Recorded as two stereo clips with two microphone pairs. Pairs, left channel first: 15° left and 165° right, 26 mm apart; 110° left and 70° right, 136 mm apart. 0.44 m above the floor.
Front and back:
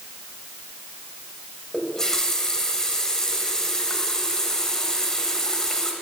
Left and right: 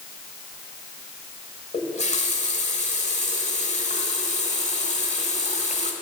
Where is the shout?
I don't hear a shout.